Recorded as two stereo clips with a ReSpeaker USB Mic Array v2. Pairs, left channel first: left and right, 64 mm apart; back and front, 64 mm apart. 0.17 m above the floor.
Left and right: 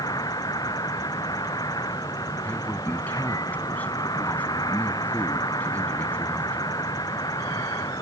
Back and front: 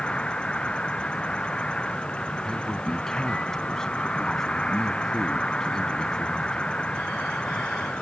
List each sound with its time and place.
0.0 s an insect: 105° left
2.4 s a man speaking: 110° left